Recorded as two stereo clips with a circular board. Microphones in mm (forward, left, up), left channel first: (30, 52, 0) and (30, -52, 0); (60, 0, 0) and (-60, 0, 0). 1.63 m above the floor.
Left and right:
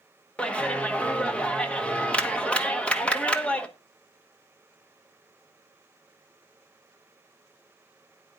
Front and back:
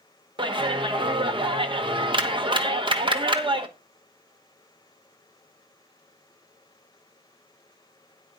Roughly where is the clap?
Behind.